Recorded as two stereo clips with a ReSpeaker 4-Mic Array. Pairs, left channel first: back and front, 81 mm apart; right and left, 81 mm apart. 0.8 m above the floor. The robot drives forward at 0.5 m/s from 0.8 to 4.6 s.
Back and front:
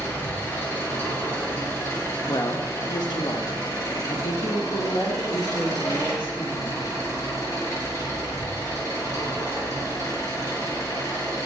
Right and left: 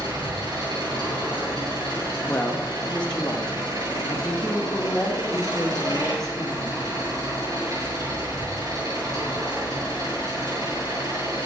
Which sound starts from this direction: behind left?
An engine running, at 0.0 s.